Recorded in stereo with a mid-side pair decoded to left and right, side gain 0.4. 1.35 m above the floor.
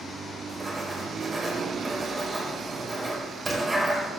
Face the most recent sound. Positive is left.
turn(degrees=-25)